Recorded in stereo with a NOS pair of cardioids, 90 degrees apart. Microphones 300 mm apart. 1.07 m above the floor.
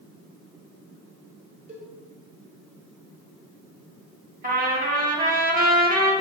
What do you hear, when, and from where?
1.7 s a cowbell: 25° right, 1.4 m
4.4 s a trumpet: 25° right, 1.2 m